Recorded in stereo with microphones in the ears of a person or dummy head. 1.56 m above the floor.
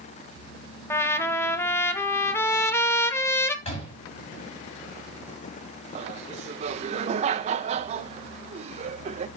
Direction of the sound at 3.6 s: 45° left (ahead or behind).